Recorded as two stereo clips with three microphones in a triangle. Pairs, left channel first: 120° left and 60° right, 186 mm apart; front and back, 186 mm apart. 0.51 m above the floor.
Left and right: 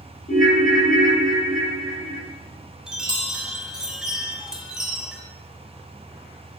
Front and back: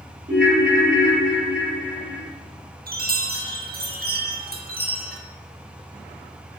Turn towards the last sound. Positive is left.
turn(degrees=-145)